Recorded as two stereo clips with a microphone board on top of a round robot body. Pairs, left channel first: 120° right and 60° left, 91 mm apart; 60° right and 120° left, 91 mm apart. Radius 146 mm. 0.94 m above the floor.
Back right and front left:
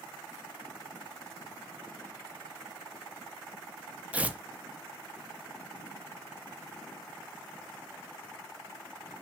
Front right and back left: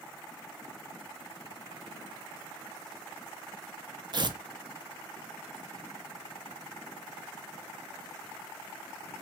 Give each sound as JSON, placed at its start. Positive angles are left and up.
{"t": 4.1, "sound": "tearing paper", "azimuth_deg": 130, "distance_m": 0.6}